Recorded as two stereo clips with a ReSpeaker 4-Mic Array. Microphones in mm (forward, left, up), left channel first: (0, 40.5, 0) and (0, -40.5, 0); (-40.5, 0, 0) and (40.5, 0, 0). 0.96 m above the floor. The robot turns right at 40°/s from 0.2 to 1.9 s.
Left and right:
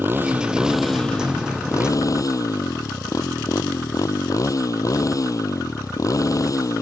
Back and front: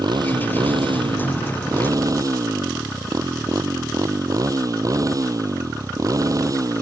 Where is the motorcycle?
25° right; by 6.8 s 45° left.